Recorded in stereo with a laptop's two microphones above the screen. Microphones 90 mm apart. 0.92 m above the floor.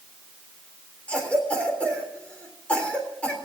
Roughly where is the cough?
Centre.